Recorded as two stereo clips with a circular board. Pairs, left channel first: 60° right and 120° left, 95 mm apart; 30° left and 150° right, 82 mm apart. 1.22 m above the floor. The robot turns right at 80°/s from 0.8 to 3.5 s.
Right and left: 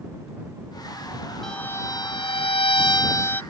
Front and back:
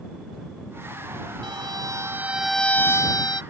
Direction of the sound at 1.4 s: 145° right.